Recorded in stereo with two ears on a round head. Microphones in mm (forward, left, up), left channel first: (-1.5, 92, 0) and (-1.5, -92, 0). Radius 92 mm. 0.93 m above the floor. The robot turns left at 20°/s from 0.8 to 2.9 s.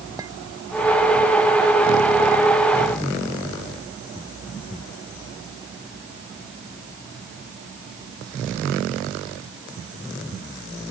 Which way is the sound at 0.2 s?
20° right (ahead or behind).